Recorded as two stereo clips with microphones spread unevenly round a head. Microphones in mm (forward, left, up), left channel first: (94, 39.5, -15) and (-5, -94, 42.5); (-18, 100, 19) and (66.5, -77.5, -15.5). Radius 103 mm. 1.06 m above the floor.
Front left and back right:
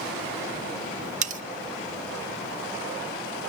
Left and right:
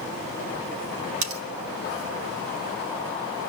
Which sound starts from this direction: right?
Cutlery clinking, at 1.2 s.